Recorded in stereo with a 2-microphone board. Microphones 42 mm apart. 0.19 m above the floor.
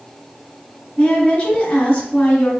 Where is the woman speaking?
20° left (ahead or behind), 1.4 m.